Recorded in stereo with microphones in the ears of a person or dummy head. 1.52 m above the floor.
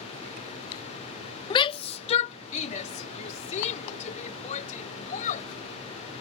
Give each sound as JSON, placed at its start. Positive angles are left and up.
{"t": 1.5, "sound": "a shout", "side_deg": 25}